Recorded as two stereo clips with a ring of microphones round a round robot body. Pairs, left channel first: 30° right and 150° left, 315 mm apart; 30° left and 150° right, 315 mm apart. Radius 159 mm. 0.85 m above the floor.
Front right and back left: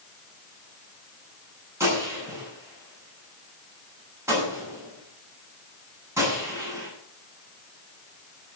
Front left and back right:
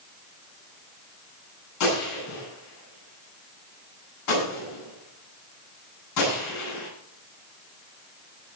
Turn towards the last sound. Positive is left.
turn(degrees=70)